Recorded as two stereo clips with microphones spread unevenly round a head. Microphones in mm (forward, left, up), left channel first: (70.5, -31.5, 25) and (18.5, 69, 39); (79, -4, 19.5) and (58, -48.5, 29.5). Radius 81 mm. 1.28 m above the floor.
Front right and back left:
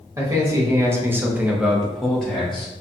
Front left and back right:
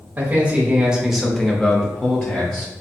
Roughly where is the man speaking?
Behind.